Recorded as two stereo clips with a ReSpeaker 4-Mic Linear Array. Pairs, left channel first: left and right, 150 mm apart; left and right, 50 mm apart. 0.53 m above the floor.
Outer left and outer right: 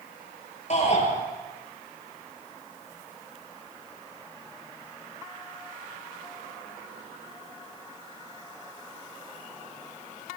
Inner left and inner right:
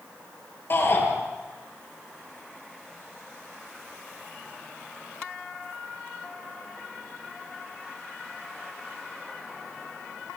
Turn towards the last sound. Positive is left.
turn(degrees=50)  # may be behind; listen again after turning